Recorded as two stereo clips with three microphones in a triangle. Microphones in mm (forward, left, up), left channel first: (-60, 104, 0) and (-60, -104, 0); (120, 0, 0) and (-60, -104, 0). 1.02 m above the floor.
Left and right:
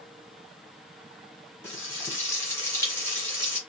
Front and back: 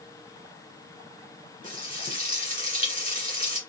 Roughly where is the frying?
Behind.